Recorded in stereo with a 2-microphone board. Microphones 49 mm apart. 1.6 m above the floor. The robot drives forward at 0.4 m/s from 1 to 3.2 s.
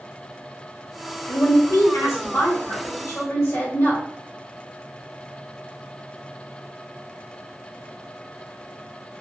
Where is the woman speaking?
65° left (ahead or behind), 1.0 m; by 4.0 s 70° left (ahead or behind), 1.0 m.